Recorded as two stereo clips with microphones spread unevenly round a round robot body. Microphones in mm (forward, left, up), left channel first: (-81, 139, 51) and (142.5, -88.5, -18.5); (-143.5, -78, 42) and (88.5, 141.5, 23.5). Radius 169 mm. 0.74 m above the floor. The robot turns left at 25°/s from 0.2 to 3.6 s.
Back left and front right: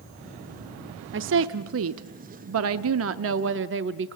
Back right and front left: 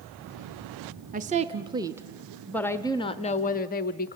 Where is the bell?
No bell in this recording.